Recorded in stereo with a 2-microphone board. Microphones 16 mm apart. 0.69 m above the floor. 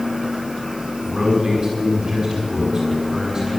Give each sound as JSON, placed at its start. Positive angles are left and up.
{"t": 1.1, "sound": "a man speaking", "side_deg": -20, "distance_m": 5.5}